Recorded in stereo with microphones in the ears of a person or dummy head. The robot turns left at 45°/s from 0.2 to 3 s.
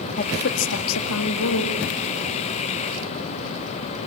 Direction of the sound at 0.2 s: 140° left.